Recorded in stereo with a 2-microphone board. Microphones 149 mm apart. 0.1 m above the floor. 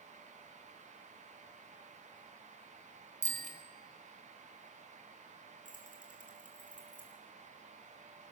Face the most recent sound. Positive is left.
turn(degrees=60)  # may be behind; listen again after turning